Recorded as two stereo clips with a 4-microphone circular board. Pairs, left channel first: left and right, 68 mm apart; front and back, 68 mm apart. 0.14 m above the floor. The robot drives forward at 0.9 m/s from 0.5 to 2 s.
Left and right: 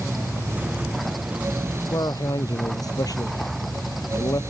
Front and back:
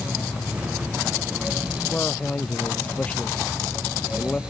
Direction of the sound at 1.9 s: 70° left.